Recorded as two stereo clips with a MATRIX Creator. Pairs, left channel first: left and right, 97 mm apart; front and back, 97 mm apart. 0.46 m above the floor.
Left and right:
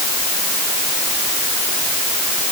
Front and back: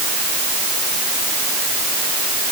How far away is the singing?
No singing in this recording.